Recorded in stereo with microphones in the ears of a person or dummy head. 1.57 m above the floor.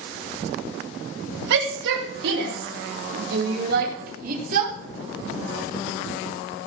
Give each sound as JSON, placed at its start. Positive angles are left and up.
{"t": 1.5, "sound": "a shout", "side_deg": -70, "distance_m": 4.0}